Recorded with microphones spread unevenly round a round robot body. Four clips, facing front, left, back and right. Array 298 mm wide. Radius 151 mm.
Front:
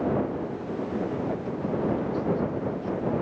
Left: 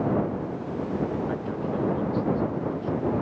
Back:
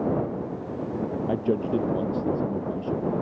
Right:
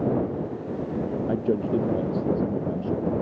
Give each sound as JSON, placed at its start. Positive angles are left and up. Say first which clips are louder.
{"t": 1.3, "sound": "a man speaking", "louder": "right 5 dB, back 5 dB", "azimuth_deg": -130}